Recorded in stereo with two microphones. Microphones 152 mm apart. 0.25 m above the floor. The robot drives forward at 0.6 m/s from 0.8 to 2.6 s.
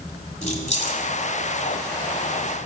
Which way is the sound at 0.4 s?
50° left (ahead or behind).